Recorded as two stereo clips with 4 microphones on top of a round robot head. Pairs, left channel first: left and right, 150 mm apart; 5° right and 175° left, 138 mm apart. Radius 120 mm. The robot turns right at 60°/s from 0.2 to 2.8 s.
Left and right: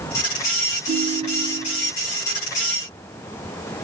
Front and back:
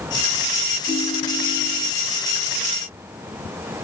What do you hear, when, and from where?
0.9 s a ringtone: 90° right, 7 m; by 1.9 s 25° right, 7 m